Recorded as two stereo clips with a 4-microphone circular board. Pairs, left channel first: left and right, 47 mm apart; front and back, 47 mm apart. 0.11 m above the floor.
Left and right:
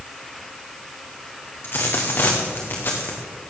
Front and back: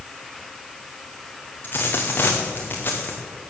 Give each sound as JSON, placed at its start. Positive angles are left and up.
{"t": 1.6, "sound": "a dropped coin", "azimuth_deg": 50, "distance_m": 3.0}